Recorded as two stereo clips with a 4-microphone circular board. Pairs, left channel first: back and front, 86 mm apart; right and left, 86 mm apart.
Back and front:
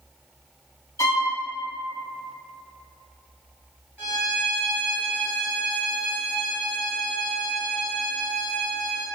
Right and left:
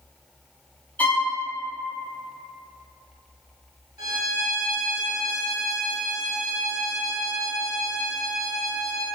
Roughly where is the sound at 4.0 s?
Ahead left.